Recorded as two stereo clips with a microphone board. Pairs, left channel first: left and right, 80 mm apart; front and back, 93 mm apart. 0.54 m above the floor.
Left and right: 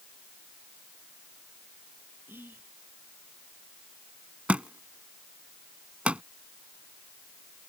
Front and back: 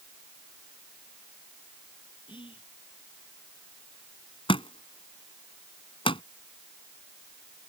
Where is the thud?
15° right.